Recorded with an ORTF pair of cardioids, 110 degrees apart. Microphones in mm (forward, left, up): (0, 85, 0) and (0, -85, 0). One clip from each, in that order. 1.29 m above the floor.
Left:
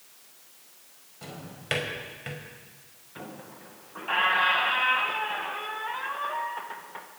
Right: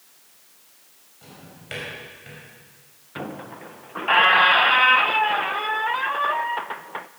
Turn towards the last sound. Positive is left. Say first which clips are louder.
# right 9 dB
turn(degrees=-45)